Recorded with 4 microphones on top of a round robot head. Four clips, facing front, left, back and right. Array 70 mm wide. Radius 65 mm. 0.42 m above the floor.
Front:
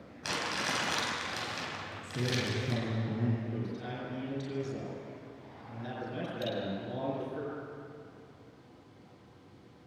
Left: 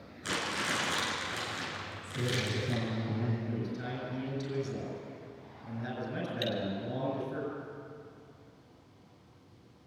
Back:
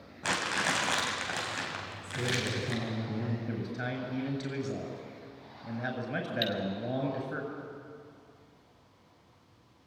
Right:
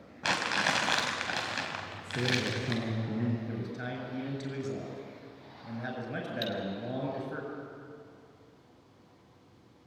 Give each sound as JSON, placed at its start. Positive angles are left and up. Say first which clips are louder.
{"t": 0.2, "sound": "crumpling", "louder": "right 5 dB, back 4 dB", "azimuth_deg": -110, "distance_m": 3.5}
{"t": 2.0, "sound": "a man speaking", "louder": "right 3 dB, back 1 dB", "azimuth_deg": -65, "distance_m": 7.5}
{"t": 3.5, "sound": "a man speaking", "louder": "left 1 dB, back 3 dB", "azimuth_deg": -155, "distance_m": 8.0}
{"t": 6.4, "sound": "cutlery clinking", "louder": "left 2 dB, back 2 dB", "azimuth_deg": 150, "distance_m": 2.0}